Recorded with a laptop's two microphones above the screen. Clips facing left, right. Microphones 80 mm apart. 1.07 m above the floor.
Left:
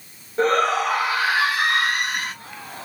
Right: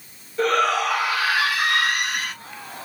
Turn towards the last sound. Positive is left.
turn(degrees=35)  # may be behind; listen again after turning